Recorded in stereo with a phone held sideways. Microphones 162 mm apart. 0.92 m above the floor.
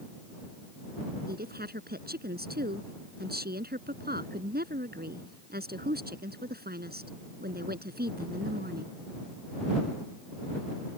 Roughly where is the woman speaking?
Right.